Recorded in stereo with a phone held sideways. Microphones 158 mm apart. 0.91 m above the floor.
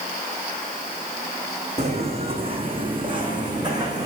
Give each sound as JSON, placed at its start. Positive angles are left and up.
{"t": 1.8, "sound": "footsteps", "side_deg": -45, "distance_m": 3.0}